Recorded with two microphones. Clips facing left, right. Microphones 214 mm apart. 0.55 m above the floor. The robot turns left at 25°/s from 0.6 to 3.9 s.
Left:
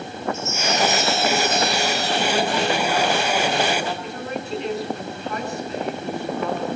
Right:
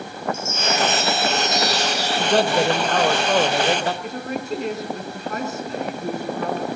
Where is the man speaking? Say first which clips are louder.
Right 5 dB; 65° right, 2.5 m; by 3.9 s 110° right, 2.5 m.